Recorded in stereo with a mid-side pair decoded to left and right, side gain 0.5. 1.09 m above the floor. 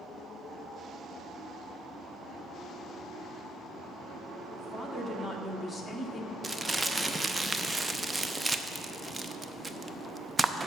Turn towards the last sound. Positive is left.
turn(degrees=-25)